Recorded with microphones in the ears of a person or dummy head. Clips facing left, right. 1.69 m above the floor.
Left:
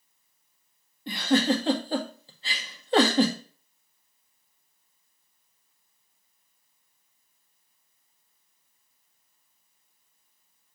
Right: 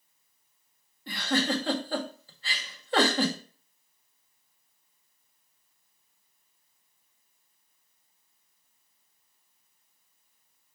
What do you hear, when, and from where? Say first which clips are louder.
1.1 s a giggle: left 5 dB; 20° left (ahead or behind), 1.4 m